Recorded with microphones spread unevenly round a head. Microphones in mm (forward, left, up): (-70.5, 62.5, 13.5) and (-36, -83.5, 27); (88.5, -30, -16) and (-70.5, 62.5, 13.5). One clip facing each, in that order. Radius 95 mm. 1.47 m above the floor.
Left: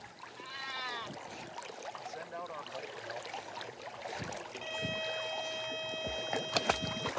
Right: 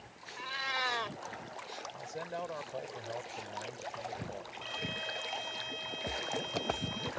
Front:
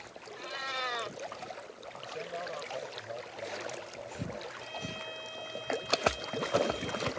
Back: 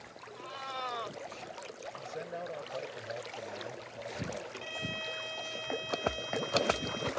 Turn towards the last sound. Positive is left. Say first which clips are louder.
# left 3 dB, back 1 dB
turn(degrees=135)